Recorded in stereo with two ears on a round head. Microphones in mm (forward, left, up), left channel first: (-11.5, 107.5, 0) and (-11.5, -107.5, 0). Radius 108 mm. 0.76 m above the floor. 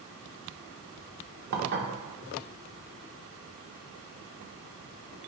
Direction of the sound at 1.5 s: 45° right (ahead or behind).